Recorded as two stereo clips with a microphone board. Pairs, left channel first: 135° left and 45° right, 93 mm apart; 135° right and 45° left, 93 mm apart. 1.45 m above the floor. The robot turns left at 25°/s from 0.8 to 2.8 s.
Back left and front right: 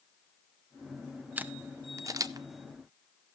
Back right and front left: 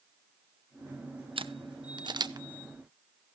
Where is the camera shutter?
25° left, 0.7 m; by 2.5 s straight ahead, 0.7 m.